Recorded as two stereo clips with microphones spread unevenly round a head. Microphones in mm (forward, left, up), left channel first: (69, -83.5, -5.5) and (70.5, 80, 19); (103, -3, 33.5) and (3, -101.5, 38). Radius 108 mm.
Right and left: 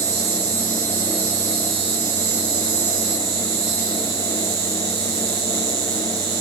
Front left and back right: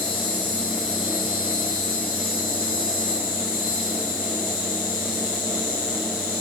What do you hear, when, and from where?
0.0 s an insect: 100° left, 4.5 m